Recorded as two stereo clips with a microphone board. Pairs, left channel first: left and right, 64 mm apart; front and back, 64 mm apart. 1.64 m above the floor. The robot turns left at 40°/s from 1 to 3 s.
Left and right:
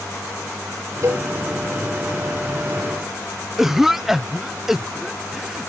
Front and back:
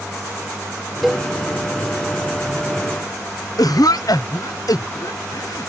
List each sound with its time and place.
1.0 s a cowbell: 90° right; by 1.3 s 100° right
3.6 s a cough: 5° right